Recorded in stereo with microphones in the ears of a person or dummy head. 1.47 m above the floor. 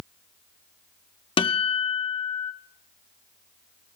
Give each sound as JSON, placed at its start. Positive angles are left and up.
{"t": 1.4, "sound": "a guitar", "side_deg": 20, "distance_m": 0.6}